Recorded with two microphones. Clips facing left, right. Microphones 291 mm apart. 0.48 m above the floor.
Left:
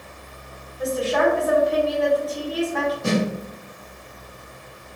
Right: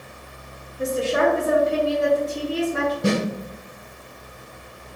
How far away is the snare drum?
About 2.0 m.